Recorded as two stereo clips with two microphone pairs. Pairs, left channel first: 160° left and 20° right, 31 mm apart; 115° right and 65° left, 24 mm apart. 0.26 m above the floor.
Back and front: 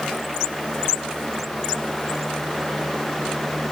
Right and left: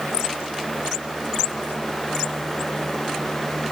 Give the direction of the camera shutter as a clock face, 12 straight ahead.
No camera shutter in this recording.